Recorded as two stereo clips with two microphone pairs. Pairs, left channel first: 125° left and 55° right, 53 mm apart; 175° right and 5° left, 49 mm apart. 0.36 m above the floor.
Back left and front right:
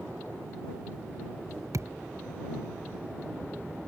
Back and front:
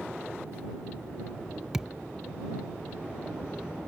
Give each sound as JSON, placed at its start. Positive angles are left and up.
{"t": 1.7, "sound": "a thud", "azimuth_deg": -75}